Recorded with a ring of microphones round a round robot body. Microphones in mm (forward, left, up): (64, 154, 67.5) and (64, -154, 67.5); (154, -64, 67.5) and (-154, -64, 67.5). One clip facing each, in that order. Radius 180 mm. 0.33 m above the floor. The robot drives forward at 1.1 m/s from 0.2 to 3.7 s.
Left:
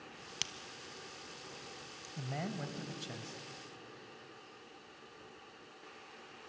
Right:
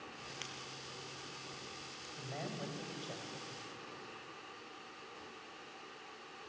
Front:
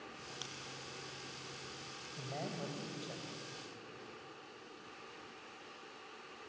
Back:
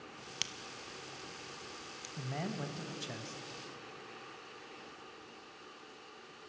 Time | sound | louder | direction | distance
0.4 | a crack | right 1 dB, back 1 dB | 130° left | 1.3 m
2.2 | a man speaking | left 3 dB, back 3 dB | 120° left | 2 m